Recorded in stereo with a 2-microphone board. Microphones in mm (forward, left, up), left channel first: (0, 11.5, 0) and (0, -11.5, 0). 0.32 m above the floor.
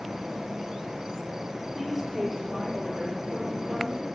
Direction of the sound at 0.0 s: 20° right (ahead or behind).